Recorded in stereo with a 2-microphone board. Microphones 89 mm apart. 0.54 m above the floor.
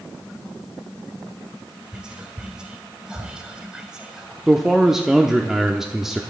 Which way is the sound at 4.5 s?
5° right (ahead or behind).